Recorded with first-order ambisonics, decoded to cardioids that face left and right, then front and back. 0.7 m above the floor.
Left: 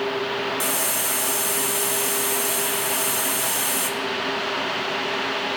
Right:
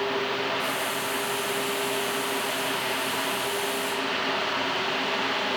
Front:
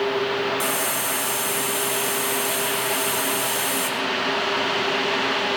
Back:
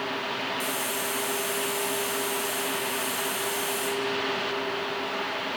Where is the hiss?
60° left, 2.5 m.